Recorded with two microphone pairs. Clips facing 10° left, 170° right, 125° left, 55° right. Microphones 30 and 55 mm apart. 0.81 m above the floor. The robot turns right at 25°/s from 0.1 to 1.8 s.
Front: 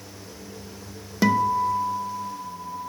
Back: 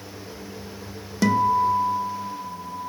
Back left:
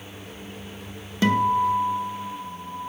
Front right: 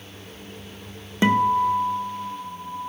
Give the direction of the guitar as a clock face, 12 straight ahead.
2 o'clock.